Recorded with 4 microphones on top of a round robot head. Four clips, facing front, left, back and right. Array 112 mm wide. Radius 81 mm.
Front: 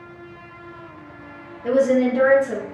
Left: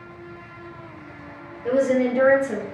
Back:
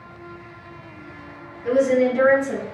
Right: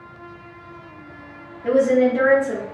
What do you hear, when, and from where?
1.6 s a woman speaking: 60° right, 1.9 m; by 2.6 s 65° right, 2.5 m